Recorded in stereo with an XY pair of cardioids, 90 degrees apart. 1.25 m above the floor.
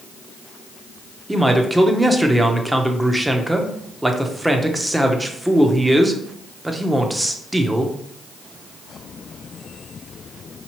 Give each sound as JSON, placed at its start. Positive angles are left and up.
{"t": 1.3, "sound": "a man speaking", "azimuth_deg": -10, "distance_m": 0.8}